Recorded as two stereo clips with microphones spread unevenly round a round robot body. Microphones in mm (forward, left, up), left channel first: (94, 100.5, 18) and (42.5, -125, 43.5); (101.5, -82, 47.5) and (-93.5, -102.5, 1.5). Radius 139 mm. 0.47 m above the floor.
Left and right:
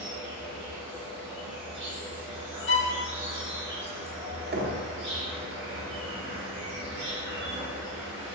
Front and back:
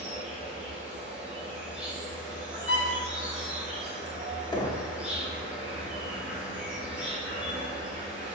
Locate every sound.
0.0 s an insect: 105° right, 1.5 m
2.7 s a violin: 50° left, 0.7 m
4.5 s knocking: 70° right, 0.7 m